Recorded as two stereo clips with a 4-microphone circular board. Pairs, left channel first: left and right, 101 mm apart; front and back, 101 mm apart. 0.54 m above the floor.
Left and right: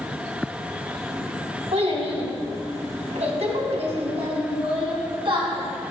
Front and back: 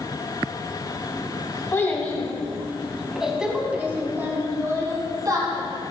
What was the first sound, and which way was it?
A child speaking, 70° right.